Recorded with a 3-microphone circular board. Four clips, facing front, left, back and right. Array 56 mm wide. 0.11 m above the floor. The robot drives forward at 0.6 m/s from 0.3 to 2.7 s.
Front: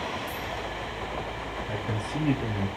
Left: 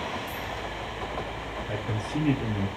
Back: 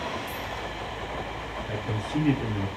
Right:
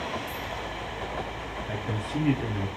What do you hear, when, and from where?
1.7 s a man speaking: 125° right, 1.5 m; by 2.7 s 150° right, 1.8 m